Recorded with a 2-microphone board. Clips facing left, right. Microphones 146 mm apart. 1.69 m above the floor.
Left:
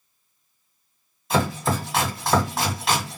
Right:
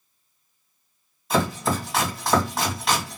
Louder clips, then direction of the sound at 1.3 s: Even; centre (ahead or behind).